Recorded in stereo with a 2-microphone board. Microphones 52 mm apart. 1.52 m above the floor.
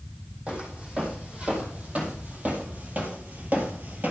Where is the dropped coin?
I don't hear a dropped coin.